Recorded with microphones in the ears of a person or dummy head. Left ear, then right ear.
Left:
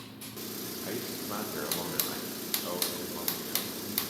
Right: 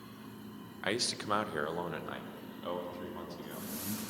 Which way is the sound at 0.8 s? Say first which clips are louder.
Right 7 dB; 70° right (ahead or behind).